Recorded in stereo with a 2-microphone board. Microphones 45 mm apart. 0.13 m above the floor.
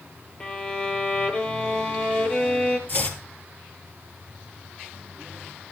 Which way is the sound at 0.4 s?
25° left (ahead or behind).